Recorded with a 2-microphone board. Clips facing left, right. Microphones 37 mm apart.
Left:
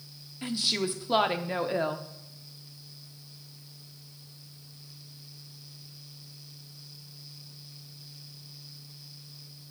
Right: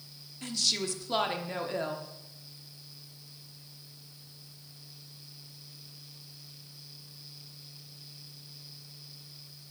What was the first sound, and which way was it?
A woman speaking, 20° left (ahead or behind).